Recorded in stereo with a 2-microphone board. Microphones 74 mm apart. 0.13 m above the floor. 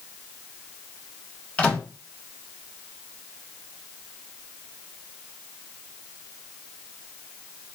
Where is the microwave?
15° left (ahead or behind), 0.9 m.